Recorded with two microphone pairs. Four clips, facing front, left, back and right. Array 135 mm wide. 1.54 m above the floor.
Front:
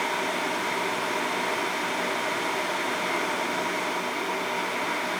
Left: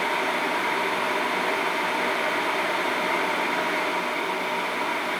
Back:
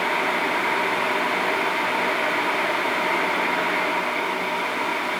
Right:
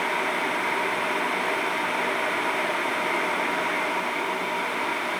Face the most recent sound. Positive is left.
No sound to turn to.